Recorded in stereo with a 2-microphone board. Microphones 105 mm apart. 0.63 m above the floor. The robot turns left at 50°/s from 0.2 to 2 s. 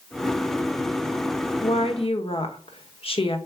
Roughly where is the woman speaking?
Left.